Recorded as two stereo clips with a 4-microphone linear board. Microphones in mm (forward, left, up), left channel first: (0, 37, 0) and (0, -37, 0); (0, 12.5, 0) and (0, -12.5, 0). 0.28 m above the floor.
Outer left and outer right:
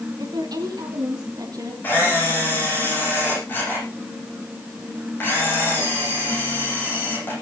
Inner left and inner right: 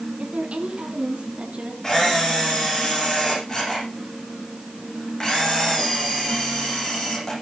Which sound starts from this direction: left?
A camera shutter, at 1.8 s.